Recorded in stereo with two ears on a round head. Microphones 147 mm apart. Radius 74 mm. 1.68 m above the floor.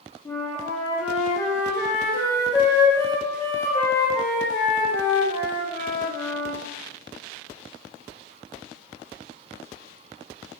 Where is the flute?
15° left (ahead or behind), 0.5 m.